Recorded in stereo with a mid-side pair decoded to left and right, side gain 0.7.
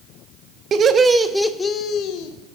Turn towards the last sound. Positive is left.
turn(degrees=65)